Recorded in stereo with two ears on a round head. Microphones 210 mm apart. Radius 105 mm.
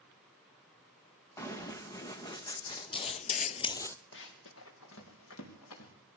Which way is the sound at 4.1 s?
55° left (ahead or behind).